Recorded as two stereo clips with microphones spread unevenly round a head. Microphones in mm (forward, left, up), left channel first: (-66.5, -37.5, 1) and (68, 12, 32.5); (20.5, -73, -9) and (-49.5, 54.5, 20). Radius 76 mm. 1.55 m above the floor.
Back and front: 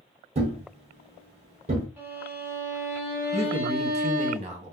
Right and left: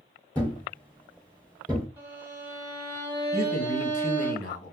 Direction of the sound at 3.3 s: 20° right.